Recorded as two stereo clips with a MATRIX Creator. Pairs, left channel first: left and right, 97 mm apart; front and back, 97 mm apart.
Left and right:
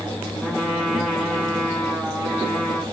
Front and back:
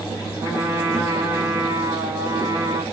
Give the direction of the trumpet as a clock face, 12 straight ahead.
6 o'clock.